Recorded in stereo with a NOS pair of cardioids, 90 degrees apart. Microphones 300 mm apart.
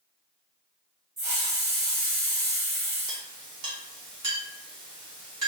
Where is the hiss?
35° right, 2 m.